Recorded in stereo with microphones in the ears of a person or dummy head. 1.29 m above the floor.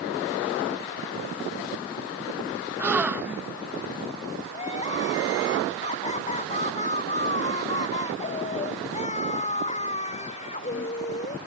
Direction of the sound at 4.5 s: 30° left (ahead or behind).